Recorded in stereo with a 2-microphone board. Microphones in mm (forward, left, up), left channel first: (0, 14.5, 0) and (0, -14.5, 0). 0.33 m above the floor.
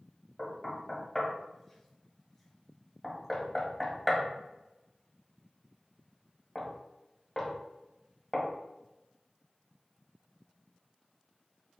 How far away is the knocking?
About 1.1 m.